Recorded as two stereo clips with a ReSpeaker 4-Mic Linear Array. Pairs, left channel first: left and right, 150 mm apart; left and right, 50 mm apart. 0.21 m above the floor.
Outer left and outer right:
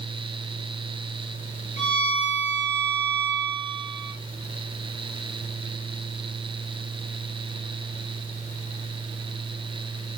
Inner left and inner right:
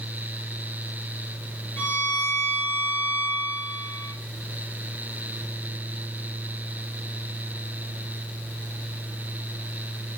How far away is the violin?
About 5 m.